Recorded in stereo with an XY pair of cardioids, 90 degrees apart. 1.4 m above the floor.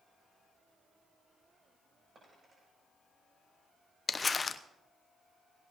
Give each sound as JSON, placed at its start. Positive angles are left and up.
{"t": 2.1, "sound": "a dropped coin", "azimuth_deg": -40, "distance_m": 8.5}
{"t": 4.1, "sound": "crumpling", "azimuth_deg": 35, "distance_m": 0.8}